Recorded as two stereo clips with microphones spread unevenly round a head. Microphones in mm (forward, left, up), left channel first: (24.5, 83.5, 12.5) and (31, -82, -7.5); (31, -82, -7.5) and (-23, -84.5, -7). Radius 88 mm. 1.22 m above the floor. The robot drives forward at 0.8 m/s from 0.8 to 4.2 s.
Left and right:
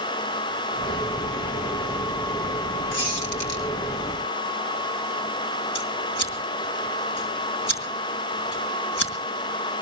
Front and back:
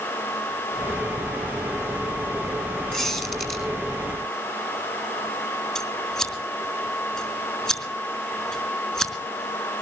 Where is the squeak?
105° left, 4 m; by 3.6 s 110° left, 4 m.